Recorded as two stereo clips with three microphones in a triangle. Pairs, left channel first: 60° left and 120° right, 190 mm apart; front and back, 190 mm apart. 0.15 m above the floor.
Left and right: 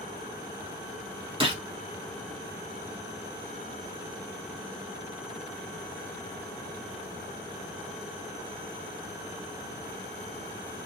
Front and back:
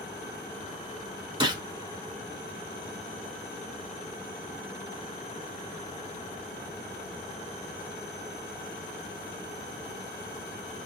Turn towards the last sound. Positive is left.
turn(degrees=-140)